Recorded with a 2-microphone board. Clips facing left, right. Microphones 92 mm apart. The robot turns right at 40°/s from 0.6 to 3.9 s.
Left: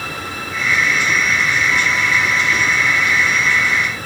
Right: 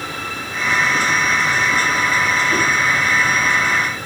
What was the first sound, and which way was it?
Only background noise.